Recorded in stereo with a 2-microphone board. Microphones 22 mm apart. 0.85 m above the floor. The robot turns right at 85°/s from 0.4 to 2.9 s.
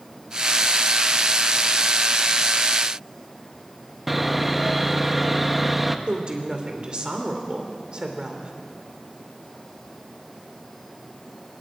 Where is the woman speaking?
35° right (ahead or behind), 3 m.